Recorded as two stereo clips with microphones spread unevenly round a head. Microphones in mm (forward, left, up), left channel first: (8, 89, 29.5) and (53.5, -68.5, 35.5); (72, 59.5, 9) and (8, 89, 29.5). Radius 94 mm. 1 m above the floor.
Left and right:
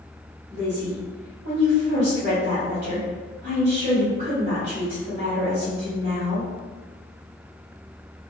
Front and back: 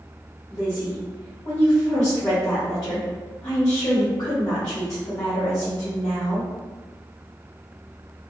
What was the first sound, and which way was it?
A woman speaking, 65° right.